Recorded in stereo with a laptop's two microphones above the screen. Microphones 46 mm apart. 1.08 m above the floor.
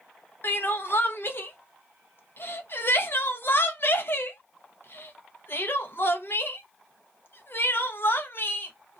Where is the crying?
55° left (ahead or behind), 0.6 m.